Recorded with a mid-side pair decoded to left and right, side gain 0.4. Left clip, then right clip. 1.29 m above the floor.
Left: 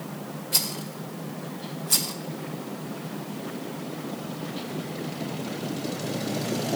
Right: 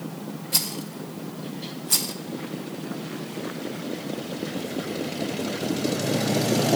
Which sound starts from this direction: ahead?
A rattle, at 0.5 s.